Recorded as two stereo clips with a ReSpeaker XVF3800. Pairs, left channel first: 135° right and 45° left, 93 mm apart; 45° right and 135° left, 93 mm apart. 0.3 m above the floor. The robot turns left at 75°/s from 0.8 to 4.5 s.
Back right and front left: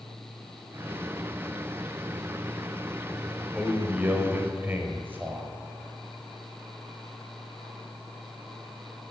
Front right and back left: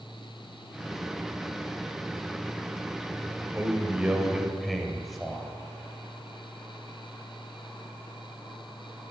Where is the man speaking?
115° left, 0.9 m; by 5.5 s 40° left, 0.9 m.